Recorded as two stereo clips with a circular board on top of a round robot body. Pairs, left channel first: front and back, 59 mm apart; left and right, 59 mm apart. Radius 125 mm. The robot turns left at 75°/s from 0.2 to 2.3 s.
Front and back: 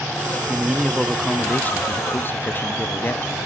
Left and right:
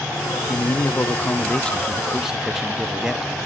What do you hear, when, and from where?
0.5 s a man speaking: 120° left, 0.6 m; by 3.3 s 15° right, 0.6 m